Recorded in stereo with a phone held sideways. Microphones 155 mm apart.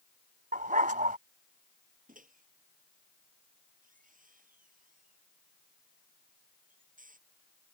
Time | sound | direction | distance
0.5 | a dog barking | 60° right (ahead or behind) | ?
2.1 | a microwave | 60° right (ahead or behind) | ?